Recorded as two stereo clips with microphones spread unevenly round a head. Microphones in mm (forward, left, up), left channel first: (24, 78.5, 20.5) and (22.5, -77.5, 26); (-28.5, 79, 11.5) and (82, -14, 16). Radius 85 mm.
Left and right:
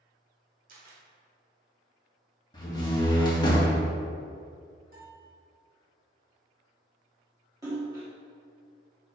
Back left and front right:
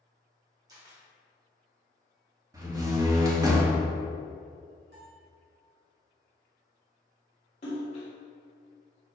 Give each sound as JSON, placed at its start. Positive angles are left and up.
{"t": 0.7, "sound": "a camera shutter", "azimuth_deg": -100, "distance_m": 1.5}
{"t": 2.5, "sound": "a door slam", "azimuth_deg": 25, "distance_m": 1.8}
{"t": 4.9, "sound": "a bell", "azimuth_deg": -60, "distance_m": 2.0}
{"t": 7.6, "sound": "a splash", "azimuth_deg": -160, "distance_m": 1.9}